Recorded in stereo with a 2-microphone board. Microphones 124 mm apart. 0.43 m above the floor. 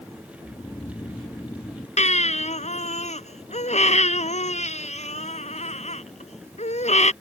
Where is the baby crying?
75° left (ahead or behind).